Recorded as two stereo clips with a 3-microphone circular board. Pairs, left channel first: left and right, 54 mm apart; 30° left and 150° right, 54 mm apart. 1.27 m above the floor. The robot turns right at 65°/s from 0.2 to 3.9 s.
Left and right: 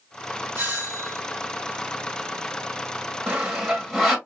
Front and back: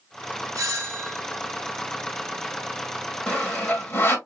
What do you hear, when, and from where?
0.6 s a doorbell: 140° right, 1.6 m; by 1.2 s 100° right, 1.6 m
3.3 s sawing: 30° right, 1.3 m; by 4.2 s 10° left, 1.3 m